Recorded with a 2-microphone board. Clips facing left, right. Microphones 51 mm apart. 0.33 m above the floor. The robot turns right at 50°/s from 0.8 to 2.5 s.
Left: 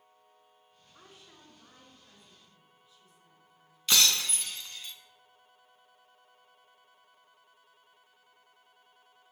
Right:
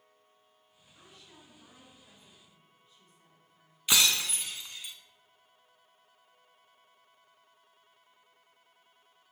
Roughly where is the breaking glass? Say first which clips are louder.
Even; centre.